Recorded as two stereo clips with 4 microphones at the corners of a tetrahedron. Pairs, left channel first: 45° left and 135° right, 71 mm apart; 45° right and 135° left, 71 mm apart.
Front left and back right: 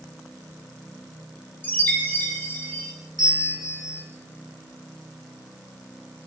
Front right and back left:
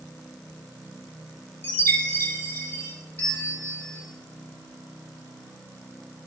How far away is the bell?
About 3.5 m.